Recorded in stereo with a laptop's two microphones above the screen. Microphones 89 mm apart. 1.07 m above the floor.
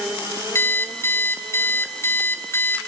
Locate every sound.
0.6 s an alarm clock: 30° left (ahead or behind), 3 m